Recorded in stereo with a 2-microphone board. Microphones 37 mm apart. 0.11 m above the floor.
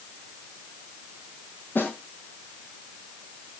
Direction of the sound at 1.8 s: 55° left (ahead or behind).